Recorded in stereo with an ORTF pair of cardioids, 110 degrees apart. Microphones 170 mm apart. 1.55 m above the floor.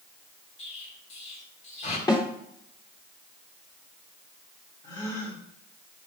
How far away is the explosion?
About 2.5 m.